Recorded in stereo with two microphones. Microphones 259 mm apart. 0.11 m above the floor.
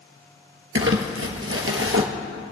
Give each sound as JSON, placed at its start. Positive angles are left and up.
{"t": 0.8, "sound": "crumpling", "side_deg": -55, "distance_m": 1.4}